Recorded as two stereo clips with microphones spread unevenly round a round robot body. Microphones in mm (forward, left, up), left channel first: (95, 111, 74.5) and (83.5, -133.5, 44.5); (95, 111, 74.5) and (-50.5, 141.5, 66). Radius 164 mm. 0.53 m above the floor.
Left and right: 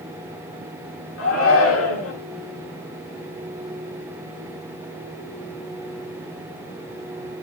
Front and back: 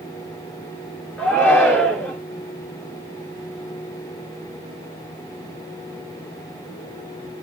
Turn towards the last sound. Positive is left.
turn(degrees=70)